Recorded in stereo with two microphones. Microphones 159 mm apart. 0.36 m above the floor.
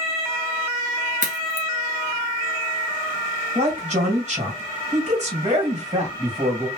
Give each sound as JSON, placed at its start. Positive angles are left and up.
{"t": 1.2, "sound": "a crack", "side_deg": -55, "distance_m": 1.3}
{"t": 3.5, "sound": "a man speaking", "side_deg": -50, "distance_m": 2.0}